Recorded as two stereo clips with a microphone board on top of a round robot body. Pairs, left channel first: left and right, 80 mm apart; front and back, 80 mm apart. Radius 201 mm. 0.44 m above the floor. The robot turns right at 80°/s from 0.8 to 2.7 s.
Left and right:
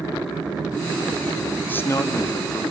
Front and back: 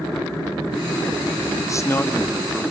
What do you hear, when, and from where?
1.7 s a man speaking: 30° left, 1.3 m; by 2.6 s 105° left, 1.3 m